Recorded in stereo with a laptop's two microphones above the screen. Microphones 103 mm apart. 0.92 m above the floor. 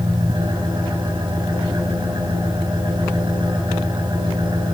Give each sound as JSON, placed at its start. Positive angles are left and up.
{"t": 0.0, "sound": "an engine running", "side_deg": -45, "distance_m": 5.0}